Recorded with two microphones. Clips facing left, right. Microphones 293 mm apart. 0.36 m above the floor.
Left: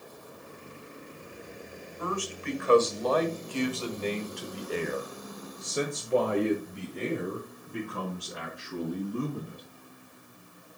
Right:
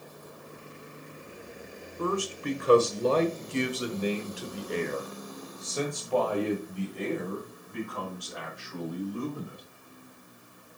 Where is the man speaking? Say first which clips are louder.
Right 4 dB; 50° right (ahead or behind), 1.8 m; by 9.6 s 45° left (ahead or behind), 3.5 m.